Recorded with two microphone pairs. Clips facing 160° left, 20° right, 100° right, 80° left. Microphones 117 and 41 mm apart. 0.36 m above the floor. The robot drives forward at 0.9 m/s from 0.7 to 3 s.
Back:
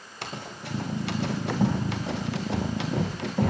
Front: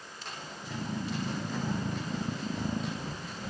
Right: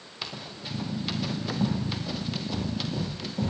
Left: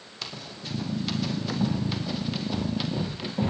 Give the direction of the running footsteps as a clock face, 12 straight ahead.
6 o'clock.